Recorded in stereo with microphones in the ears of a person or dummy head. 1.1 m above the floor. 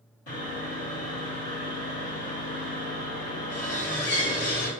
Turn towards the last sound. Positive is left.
turn(degrees=70)  # may be behind; listen again after turning